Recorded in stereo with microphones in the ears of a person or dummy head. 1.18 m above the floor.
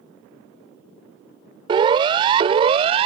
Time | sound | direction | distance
1.7 | a siren | 30° right (ahead or behind) | ?